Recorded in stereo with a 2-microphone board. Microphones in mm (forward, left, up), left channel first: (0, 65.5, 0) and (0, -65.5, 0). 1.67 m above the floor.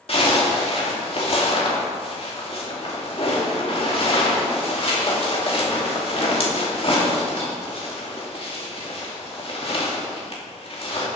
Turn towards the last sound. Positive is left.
turn(degrees=45)  # may be behind; listen again after turning